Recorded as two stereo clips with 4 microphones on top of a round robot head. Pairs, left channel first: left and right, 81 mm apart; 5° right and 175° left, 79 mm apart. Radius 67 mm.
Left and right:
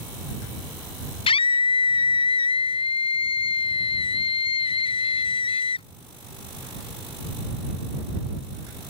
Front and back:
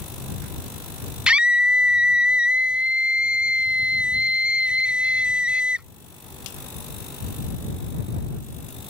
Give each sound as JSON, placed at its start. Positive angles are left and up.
{"t": 1.3, "sound": "a scream", "azimuth_deg": 95}